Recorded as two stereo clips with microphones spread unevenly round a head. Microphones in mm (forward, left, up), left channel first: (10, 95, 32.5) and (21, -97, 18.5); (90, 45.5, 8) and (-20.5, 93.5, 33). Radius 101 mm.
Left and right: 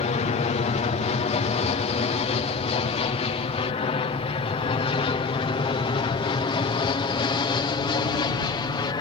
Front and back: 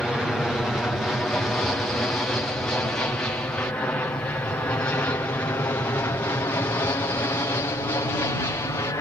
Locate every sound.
0.0 s an aircraft: 60° left; by 9.0 s 30° left